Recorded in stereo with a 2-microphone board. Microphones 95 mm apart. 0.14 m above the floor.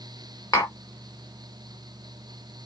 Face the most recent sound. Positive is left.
turn(degrees=30)  # may be behind; listen again after turning